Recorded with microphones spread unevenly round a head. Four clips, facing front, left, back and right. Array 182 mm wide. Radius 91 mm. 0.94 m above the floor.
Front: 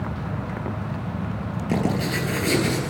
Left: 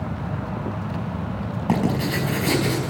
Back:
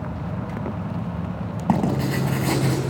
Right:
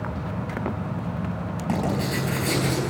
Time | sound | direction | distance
1.7 | writing | 160° left | 4.5 m